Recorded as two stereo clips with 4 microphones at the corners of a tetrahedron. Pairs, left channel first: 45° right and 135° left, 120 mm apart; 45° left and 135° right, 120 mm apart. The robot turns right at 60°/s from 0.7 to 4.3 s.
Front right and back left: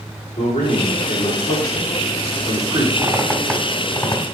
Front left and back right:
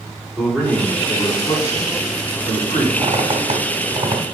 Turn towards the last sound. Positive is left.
turn(degrees=-95)